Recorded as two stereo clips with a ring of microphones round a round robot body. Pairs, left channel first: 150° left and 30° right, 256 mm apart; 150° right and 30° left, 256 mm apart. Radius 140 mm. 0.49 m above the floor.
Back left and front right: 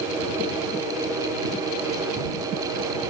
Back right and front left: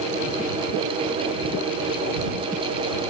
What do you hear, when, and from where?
Only background noise.